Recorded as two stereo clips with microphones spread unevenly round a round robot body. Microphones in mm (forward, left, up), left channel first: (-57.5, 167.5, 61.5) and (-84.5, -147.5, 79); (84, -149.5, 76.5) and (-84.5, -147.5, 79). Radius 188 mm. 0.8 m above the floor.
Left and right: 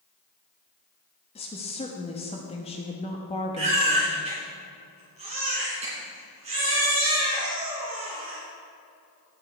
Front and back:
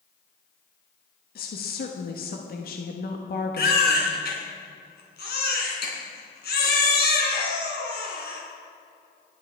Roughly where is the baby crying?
Ahead.